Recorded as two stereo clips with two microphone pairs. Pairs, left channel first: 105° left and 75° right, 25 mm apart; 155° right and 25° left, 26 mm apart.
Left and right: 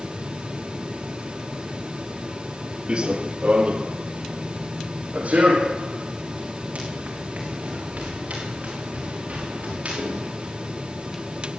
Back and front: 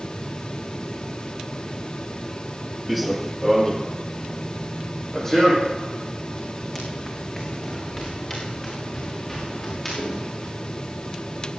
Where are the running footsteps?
60° right, 1.6 m; by 10.5 s 85° right, 11 m.